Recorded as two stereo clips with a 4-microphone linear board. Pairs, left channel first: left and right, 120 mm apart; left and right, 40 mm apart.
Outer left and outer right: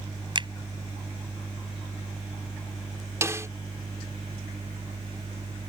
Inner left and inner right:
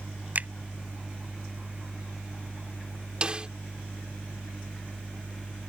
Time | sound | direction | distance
0.3 | a finger snap | 40° right (ahead or behind) | ?
3.2 | a snare drum | 25° right (ahead or behind) | ?